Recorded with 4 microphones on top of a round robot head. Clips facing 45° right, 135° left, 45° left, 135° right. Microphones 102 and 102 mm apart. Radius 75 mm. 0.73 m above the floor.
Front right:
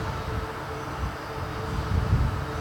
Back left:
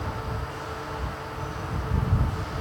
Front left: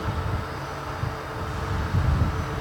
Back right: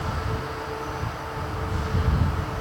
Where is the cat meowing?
I don't hear a cat meowing.